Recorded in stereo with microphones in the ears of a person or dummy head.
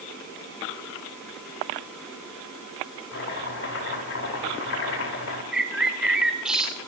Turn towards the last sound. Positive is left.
turn(degrees=-5)  # may be behind; listen again after turning